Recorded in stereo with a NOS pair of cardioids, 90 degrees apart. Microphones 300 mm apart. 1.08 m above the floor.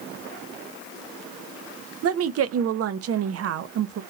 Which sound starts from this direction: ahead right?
A woman speaking, at 2.0 s.